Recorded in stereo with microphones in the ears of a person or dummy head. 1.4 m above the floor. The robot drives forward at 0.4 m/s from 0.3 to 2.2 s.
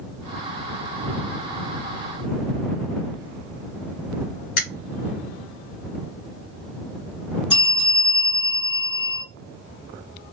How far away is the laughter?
No laughter in this recording.